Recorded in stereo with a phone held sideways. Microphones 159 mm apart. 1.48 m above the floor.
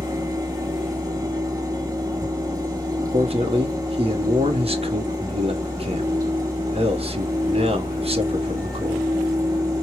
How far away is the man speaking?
About 0.9 m.